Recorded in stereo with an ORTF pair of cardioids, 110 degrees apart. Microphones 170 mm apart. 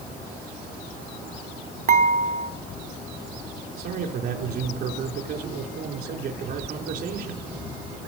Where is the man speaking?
65° right, 4 m.